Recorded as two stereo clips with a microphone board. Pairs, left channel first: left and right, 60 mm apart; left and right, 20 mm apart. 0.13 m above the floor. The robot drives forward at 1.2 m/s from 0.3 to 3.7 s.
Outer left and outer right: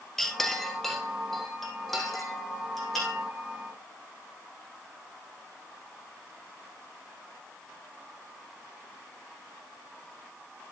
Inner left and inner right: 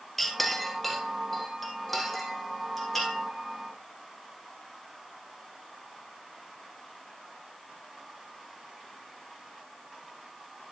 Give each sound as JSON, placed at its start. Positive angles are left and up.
{"t": 0.2, "sound": "a clink", "side_deg": 5, "distance_m": 1.3}